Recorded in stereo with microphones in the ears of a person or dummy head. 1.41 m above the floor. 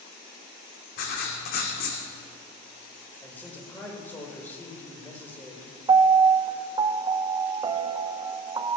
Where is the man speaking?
10° left (ahead or behind), 4.5 m.